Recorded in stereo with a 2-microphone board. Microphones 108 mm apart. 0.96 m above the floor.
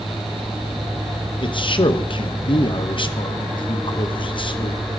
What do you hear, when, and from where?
1.4 s a man speaking: 50° left (ahead or behind), 0.7 m